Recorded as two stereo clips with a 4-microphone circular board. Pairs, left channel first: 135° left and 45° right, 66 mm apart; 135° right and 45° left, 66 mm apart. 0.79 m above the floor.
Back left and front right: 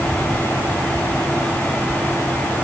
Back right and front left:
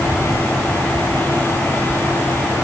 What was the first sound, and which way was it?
Only background noise.